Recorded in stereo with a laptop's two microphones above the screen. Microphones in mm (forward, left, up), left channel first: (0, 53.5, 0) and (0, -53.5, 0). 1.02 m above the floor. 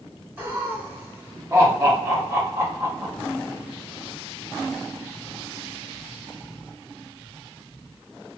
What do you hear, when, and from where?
0.4 s laughter: 20° right (ahead or behind), 1.6 m; by 3.1 s 25° right (ahead or behind), 0.7 m